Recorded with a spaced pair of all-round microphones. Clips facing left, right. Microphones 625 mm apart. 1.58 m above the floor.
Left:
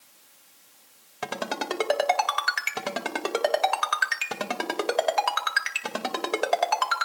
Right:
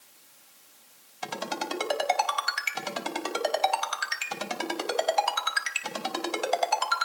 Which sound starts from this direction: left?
A ringtone, at 1.2 s.